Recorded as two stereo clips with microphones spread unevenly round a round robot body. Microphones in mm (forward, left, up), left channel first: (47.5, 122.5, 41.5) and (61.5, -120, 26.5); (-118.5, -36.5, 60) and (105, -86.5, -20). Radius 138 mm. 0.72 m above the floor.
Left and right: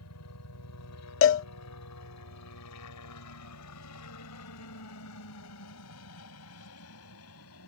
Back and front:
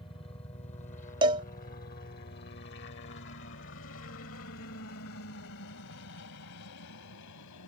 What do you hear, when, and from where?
0.0 s a helicopter: 90° left; by 7.7 s 135° left
1.2 s a cowbell: 55° left